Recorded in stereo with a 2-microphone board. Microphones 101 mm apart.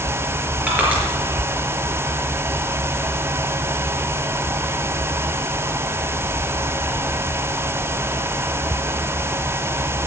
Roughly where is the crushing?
Centre.